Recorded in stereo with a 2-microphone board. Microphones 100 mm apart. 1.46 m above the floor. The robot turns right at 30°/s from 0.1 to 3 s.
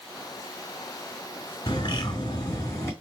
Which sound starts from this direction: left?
A bird, at 1.7 s.